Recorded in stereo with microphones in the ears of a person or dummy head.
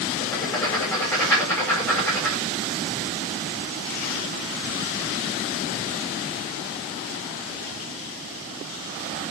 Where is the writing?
10° left (ahead or behind), 5 m.